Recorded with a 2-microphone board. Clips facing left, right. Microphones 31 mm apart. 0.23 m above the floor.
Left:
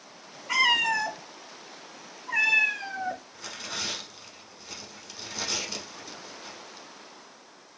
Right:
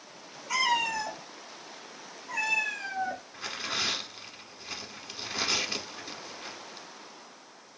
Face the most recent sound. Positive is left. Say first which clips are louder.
# right 3 dB
turn(degrees=-30)  # may be behind; listen again after turning